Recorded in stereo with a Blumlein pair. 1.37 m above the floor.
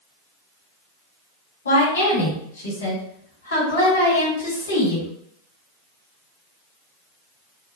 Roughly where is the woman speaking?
Ahead left.